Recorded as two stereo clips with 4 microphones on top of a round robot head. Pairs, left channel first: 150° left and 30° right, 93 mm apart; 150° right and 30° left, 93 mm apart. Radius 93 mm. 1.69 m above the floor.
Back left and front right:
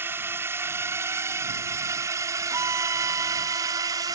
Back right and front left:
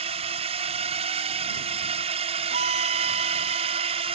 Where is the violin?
35° left.